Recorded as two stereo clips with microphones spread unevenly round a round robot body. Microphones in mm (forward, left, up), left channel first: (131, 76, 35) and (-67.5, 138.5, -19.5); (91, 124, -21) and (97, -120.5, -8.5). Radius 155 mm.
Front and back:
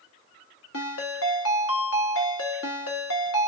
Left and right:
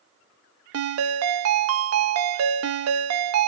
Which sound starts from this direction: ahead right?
A ringtone, at 0.7 s.